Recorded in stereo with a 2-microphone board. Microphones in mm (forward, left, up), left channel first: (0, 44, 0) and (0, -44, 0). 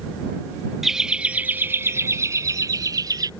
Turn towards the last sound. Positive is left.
turn(degrees=-45)  # may be behind; listen again after turning